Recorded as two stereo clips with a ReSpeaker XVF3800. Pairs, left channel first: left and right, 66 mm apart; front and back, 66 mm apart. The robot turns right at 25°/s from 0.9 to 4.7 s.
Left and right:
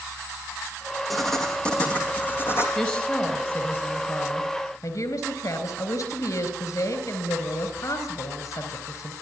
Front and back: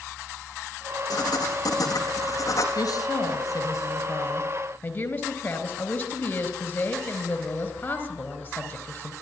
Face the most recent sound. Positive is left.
turn(degrees=65)